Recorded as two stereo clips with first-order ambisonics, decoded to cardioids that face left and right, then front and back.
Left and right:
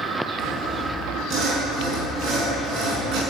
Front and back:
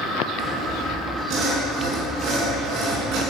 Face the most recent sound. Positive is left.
turn(degrees=-125)